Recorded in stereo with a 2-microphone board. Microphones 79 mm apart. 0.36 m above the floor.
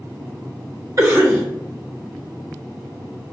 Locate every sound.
1.0 s a cough: 40° right (ahead or behind), 1.4 m